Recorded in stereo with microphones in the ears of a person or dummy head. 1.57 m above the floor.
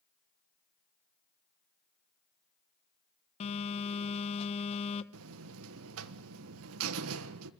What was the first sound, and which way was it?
A phone buzzing, 30° left (ahead or behind).